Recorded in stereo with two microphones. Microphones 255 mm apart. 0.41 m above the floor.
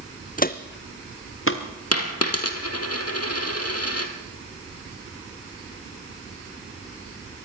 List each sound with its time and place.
0.4 s footsteps: 30° left (ahead or behind), 1.0 m; by 1.6 s 55° left (ahead or behind), 2.5 m
1.9 s a dropped coin: 70° left (ahead or behind), 2 m